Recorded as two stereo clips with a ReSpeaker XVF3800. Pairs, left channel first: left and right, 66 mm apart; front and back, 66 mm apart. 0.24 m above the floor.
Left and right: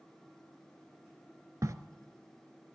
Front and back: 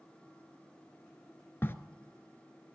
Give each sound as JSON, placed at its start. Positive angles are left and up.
{"t": 1.6, "sound": "a crack", "azimuth_deg": -55, "distance_m": 0.6}